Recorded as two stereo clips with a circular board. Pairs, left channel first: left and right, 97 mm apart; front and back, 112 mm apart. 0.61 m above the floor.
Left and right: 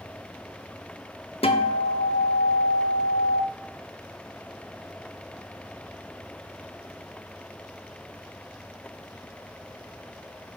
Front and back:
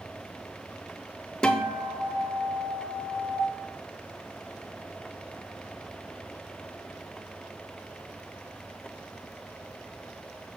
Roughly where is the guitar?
Left.